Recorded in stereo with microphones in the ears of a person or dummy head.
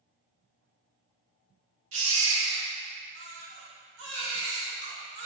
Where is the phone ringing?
No phone ringing in this recording.